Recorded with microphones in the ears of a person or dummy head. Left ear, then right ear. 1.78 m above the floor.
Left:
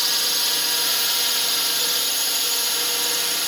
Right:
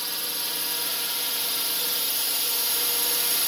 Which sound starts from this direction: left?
A drone, at 0.0 s.